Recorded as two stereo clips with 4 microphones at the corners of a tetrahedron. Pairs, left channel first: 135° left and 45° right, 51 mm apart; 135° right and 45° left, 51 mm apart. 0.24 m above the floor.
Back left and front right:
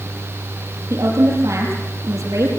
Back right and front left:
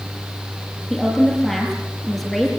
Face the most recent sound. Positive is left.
turn(degrees=-45)